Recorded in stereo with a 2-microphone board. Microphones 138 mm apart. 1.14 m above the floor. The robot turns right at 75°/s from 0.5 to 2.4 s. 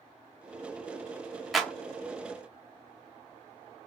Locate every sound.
1.5 s a clap: centre (ahead or behind), 0.6 m; by 1.7 s 10° left (ahead or behind), 0.6 m